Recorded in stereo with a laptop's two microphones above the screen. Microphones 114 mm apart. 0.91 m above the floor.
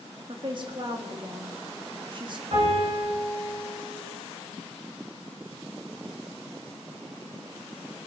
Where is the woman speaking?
45° right (ahead or behind), 1.5 m.